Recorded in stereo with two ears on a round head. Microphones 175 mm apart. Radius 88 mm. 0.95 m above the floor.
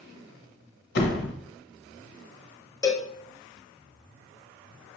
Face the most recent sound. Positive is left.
turn(degrees=15)  # may be behind; listen again after turning